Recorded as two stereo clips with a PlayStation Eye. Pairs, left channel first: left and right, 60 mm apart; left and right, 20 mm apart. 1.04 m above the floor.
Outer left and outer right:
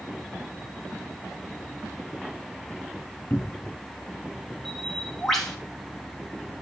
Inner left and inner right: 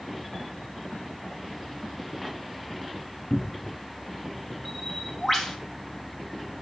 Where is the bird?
5° left (ahead or behind), 3 m.